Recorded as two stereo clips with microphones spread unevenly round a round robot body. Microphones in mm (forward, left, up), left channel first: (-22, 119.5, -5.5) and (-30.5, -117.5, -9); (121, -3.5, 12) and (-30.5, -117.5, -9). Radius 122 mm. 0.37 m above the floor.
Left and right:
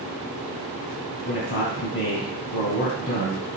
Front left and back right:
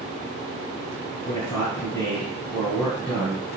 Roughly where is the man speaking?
Left.